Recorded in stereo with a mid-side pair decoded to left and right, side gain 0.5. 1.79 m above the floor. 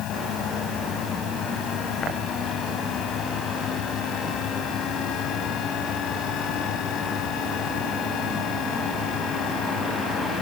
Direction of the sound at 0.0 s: 70° left.